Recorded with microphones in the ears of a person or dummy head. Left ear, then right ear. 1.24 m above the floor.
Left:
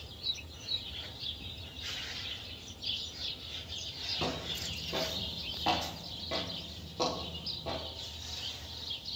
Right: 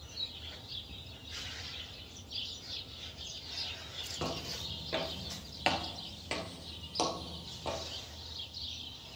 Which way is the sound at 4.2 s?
5° right (ahead or behind).